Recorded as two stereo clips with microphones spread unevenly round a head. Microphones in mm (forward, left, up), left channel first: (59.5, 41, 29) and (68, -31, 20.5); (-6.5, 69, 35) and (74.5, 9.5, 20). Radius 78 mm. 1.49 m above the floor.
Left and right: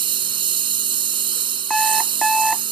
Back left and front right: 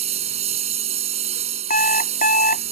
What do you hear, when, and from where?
0.0 s a lawn mower: 90° right
1.7 s an alarm clock: 175° right